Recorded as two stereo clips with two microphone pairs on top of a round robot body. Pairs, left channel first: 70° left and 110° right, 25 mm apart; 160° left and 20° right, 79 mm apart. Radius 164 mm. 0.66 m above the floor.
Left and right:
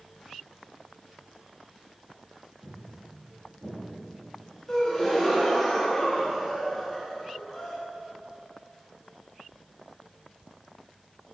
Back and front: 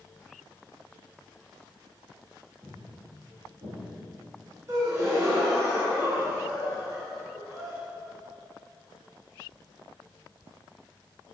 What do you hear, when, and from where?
2.6 s footsteps: 90° right, 1.3 m; by 4.6 s 40° right, 1.3 m
4.7 s a gasp: 15° left, 1.1 m